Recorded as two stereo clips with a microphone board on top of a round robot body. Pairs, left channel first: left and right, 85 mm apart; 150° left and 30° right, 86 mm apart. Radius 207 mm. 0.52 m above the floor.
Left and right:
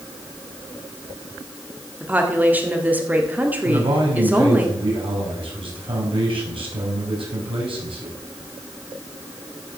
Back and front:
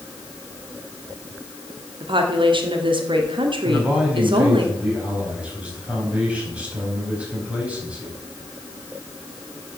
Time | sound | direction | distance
2.0 | a woman speaking | 20° right | 2 m
3.6 | a man speaking | 105° right | 4.5 m